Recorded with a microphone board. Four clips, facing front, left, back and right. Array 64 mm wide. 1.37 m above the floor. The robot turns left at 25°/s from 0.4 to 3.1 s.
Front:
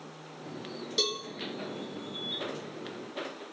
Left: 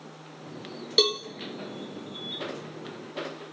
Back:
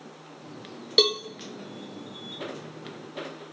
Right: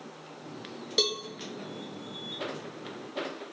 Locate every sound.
1.0 s a cowbell: 165° left, 0.6 m; by 1.2 s 160° left, 0.6 m